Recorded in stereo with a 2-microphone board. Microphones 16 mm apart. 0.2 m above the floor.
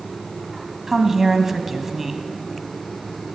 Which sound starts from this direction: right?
A woman speaking, at 0.9 s.